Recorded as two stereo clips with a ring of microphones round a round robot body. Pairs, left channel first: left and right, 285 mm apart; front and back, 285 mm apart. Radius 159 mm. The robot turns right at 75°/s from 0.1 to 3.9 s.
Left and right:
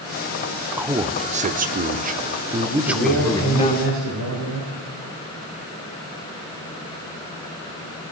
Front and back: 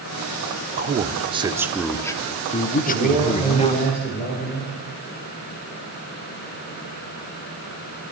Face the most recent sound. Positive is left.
turn(degrees=-50)